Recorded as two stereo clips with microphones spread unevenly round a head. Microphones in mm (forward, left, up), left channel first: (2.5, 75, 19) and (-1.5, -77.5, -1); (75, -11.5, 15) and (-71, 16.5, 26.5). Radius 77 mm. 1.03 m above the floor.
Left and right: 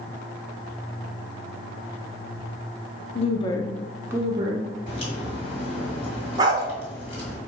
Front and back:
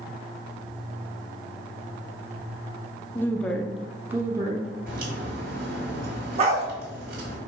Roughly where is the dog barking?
Behind right.